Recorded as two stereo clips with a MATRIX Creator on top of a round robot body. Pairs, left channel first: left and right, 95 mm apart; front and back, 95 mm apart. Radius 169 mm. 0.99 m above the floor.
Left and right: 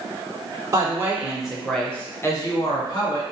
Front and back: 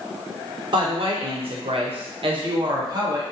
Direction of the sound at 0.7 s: 145° right.